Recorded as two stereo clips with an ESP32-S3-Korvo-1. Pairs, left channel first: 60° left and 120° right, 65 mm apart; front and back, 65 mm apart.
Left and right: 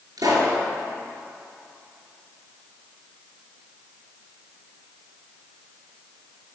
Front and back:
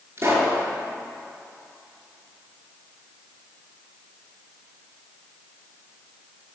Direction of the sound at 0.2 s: 130° right.